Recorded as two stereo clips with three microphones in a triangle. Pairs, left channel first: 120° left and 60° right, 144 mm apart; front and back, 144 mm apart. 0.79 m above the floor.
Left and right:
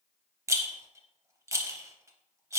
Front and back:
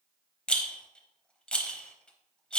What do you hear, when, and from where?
0.5 s a rattle: 70° right, 0.6 m